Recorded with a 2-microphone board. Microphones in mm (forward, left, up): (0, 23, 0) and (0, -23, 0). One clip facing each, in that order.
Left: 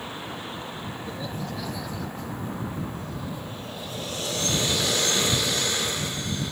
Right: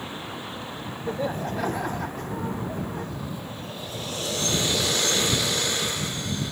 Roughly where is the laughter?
Right.